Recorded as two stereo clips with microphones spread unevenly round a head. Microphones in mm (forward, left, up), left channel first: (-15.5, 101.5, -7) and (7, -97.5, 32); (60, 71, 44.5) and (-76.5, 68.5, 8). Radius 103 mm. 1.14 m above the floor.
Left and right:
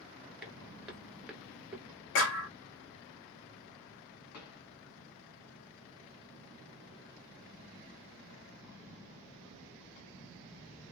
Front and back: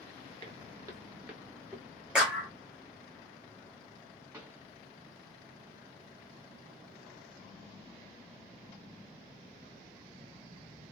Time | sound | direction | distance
0.4 | footsteps | 150° right | 1.2 m
2.1 | a clap | 100° left | 1.5 m
4.3 | a pop | 100° left | 2 m